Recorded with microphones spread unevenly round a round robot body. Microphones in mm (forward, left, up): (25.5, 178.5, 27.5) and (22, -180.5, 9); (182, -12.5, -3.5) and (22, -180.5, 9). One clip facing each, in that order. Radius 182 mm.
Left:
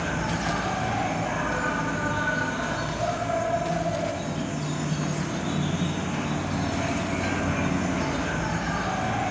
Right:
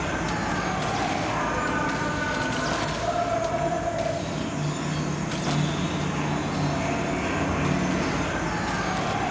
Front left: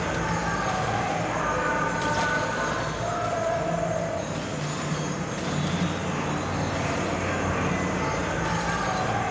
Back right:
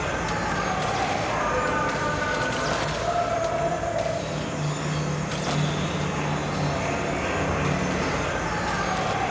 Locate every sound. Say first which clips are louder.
0.0 s an insect: right 1 dB, even; 130° left, 0.7 m